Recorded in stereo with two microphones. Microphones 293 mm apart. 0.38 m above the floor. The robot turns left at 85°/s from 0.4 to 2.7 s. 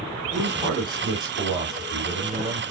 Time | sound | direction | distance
0.3 | a man speaking | 175° right | 3 m